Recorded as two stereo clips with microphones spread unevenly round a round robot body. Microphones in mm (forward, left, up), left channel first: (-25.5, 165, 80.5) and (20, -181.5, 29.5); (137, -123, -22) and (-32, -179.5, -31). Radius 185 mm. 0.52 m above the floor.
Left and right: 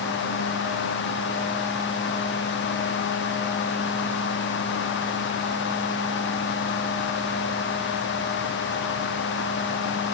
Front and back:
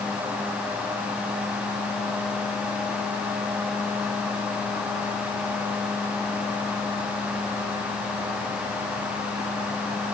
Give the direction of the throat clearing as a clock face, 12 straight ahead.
No throat clearing in this recording.